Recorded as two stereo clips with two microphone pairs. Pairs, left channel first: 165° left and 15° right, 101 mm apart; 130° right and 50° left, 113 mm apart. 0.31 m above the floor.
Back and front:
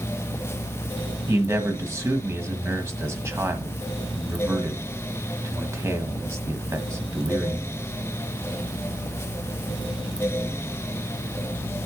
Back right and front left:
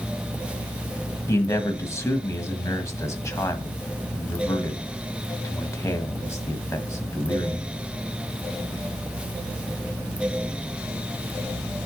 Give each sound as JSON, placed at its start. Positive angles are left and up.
{"t": 1.3, "sound": "a man speaking", "azimuth_deg": -70, "distance_m": 1.6}